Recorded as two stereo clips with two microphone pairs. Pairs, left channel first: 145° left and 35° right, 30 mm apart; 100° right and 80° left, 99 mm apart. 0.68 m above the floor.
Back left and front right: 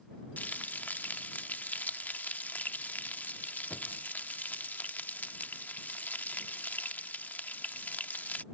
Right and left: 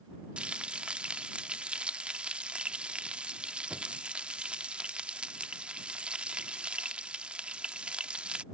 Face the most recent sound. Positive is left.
turn(degrees=160)